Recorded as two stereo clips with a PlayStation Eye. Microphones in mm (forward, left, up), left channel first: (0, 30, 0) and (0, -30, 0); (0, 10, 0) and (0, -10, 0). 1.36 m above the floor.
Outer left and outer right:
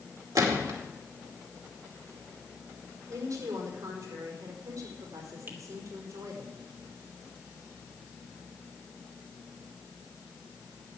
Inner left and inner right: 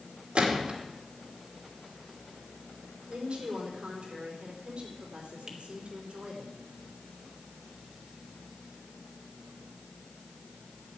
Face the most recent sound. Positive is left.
turn(degrees=-40)  # may be behind; listen again after turning